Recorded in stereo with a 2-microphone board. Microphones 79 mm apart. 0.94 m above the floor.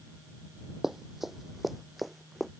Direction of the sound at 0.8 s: 5° right (ahead or behind).